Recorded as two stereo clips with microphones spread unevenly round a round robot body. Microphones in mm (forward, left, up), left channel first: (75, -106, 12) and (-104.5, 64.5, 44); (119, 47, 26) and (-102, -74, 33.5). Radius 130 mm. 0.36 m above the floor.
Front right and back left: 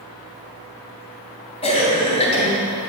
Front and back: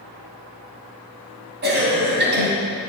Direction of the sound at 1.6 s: 105° right.